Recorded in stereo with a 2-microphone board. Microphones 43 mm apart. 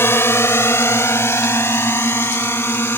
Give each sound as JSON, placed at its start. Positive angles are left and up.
{"t": 0.0, "sound": "a drone", "side_deg": 65}